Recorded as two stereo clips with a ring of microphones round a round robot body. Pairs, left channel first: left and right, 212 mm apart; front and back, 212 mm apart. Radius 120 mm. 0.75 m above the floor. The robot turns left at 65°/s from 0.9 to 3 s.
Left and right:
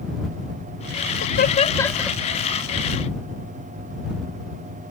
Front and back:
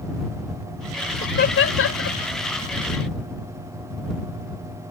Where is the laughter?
55° left; by 2.2 s 10° right.